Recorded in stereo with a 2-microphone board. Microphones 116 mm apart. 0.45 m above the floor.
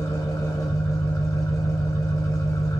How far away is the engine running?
About 1.0 m.